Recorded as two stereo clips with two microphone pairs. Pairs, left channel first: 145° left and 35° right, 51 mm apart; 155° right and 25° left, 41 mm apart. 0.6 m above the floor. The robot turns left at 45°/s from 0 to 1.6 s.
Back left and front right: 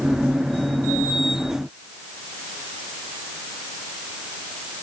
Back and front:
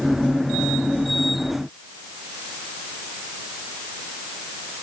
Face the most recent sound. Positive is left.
No sound to turn to.